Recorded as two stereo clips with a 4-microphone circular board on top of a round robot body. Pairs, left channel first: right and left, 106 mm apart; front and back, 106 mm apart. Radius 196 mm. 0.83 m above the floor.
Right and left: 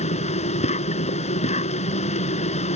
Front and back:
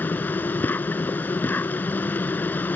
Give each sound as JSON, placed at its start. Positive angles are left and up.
{"t": 0.0, "sound": "an insect", "azimuth_deg": -75}